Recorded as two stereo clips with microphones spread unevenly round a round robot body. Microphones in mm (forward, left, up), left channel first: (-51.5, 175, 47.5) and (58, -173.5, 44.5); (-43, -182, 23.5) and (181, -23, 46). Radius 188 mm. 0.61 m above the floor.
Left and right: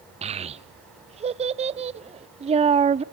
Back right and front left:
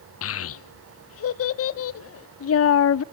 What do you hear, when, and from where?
0.2 s a child speaking: 145° right, 0.6 m